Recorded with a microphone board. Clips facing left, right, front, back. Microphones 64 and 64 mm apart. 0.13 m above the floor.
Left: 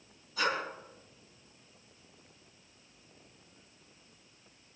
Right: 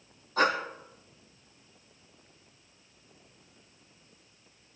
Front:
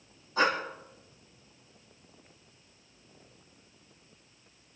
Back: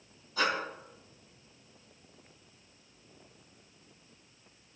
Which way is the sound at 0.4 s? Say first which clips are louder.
Right 6 dB, front 4 dB; 55° right.